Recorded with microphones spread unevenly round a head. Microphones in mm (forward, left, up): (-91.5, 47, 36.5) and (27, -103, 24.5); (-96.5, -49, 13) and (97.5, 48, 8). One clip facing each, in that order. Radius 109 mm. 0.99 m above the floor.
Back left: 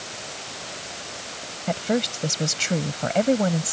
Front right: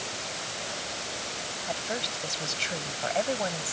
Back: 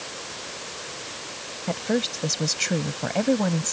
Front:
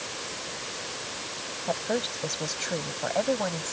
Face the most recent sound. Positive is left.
turn(degrees=165)